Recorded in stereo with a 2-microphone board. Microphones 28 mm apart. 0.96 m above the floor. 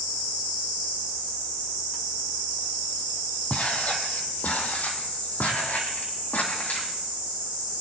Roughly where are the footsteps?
Left.